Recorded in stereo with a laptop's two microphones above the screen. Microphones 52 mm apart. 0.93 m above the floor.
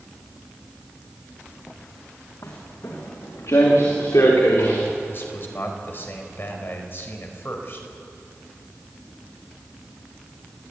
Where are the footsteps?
80° left, 5.5 m; by 4.8 s 70° left (ahead or behind), 6.5 m.